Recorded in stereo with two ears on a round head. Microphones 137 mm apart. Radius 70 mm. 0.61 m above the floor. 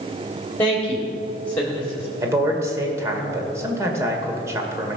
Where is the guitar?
No guitar in this recording.